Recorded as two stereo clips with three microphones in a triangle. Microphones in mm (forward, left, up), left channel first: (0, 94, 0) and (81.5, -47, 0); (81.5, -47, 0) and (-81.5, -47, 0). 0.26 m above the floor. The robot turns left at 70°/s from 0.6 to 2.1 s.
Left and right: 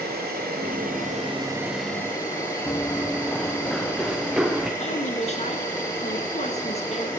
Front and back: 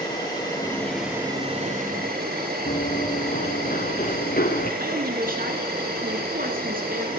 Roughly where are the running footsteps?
Ahead left.